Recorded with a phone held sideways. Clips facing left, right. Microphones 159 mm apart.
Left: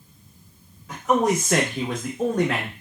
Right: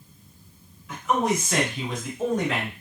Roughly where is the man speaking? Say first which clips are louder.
Left 3 dB; left.